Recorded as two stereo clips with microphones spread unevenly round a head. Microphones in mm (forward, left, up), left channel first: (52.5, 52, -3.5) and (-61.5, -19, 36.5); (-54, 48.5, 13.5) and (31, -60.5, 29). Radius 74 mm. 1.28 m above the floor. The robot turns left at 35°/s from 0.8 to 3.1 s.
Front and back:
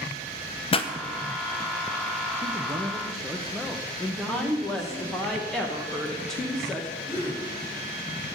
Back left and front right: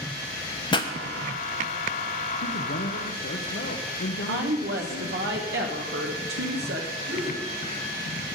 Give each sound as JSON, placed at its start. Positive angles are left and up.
{"t": 0.7, "sound": "a pop", "azimuth_deg": 70, "distance_m": 0.9}
{"t": 2.4, "sound": "a man speaking", "azimuth_deg": 145, "distance_m": 1.1}
{"t": 4.3, "sound": "a woman speaking", "azimuth_deg": -55, "distance_m": 1.2}
{"t": 7.1, "sound": "a gasp", "azimuth_deg": -70, "distance_m": 6.0}